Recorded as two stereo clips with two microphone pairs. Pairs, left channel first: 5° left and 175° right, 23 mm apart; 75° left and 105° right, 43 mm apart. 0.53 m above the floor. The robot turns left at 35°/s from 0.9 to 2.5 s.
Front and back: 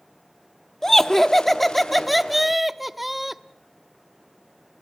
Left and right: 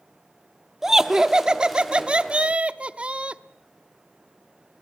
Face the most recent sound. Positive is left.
turn(degrees=-90)